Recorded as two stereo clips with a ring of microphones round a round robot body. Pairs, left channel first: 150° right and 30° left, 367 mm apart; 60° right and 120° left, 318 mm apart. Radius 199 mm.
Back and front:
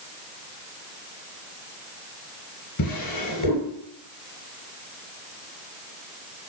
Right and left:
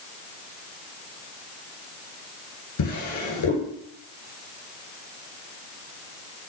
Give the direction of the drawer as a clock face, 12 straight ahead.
3 o'clock.